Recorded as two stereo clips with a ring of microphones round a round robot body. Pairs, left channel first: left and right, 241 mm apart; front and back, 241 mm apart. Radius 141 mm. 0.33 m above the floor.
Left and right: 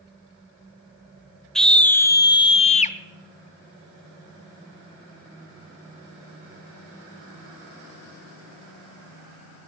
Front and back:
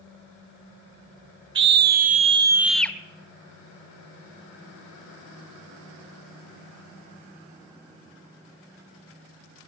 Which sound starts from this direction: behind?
A scream, at 1.6 s.